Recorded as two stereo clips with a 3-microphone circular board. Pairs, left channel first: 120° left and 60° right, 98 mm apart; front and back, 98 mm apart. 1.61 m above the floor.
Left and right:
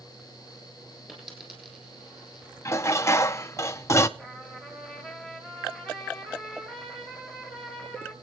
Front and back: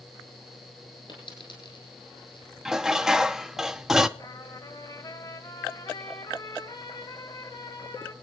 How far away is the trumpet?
About 2.5 m.